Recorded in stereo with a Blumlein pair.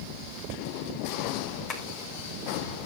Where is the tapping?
30° left, 2.5 m.